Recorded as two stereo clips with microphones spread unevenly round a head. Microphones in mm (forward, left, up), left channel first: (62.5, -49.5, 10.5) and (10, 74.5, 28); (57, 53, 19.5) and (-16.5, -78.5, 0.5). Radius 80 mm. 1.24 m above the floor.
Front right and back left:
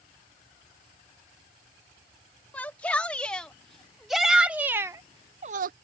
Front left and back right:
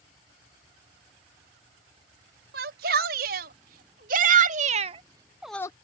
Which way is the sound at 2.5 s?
150° right.